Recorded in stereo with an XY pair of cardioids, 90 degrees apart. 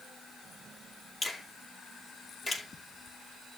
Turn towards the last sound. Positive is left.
turn(degrees=40)